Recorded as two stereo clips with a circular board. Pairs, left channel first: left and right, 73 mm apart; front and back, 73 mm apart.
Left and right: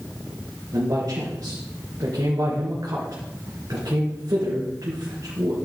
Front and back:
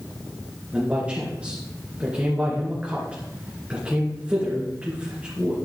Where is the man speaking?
110° right, 3 m.